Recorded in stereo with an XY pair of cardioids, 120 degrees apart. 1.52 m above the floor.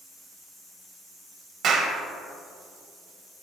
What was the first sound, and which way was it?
A clap, 55° right.